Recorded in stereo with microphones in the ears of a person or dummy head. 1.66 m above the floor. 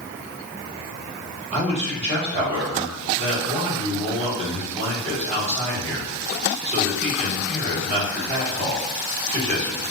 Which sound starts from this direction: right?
A man speaking, at 1.5 s.